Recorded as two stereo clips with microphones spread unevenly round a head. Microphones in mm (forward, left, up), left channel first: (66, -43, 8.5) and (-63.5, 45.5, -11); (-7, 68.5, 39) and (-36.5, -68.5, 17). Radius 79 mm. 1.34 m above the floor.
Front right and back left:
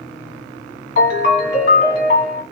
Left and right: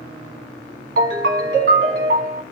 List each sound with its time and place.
1.0 s a ringtone: 60° right, 1.6 m